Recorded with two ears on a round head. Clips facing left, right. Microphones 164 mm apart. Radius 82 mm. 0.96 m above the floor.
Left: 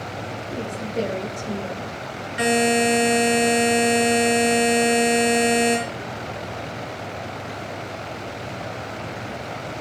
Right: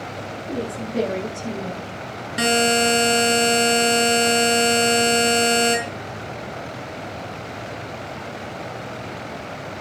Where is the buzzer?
55° right (ahead or behind), 5 m.